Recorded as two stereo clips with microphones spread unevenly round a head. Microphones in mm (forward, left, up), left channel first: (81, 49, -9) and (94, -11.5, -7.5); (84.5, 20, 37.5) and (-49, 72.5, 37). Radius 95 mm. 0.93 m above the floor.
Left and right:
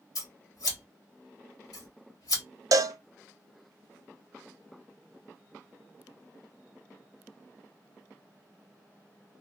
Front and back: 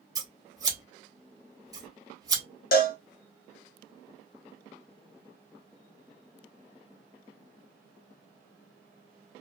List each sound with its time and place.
0.1 s scissors: 90° left, 1.4 m
2.7 s a cowbell: 65° right, 0.6 m